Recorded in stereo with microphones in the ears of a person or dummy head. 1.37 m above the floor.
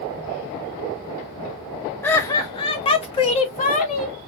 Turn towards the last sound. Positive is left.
turn(degrees=35)  # may be behind; listen again after turning